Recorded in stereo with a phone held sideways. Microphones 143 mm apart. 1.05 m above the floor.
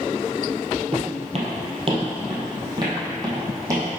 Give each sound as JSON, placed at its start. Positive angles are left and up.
{"t": 0.9, "sound": "footsteps", "side_deg": -50, "distance_m": 1.6}